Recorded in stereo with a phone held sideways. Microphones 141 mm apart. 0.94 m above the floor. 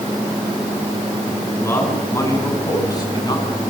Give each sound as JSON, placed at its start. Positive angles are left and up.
{"t": 1.6, "sound": "a man speaking", "side_deg": 20, "distance_m": 9.5}